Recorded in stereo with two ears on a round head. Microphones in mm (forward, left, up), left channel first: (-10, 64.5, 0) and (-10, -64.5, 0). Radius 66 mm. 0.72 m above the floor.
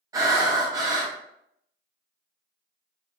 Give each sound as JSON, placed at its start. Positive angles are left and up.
{"t": 0.1, "sound": "breathing", "side_deg": -25, "distance_m": 0.5}